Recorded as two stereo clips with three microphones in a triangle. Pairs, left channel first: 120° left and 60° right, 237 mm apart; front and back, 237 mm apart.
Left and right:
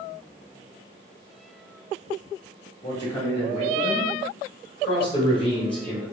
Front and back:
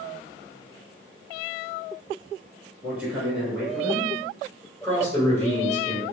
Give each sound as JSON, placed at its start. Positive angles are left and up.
{"t": 2.8, "sound": "a man speaking", "azimuth_deg": 105, "distance_m": 1.2}
{"t": 4.8, "sound": "a man speaking", "azimuth_deg": 70, "distance_m": 1.5}